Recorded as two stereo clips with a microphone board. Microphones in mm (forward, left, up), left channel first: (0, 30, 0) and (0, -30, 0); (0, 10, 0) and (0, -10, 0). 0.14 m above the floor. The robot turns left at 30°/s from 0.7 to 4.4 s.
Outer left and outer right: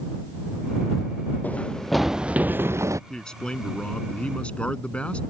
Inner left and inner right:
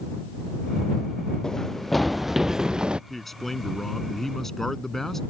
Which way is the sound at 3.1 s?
10° left (ahead or behind).